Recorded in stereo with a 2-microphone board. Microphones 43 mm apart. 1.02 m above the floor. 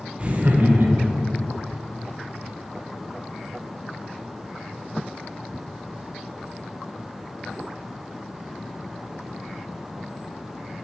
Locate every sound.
0.2 s laughter: 25° right (ahead or behind), 0.6 m; by 1.3 s 60° right (ahead or behind), 1.0 m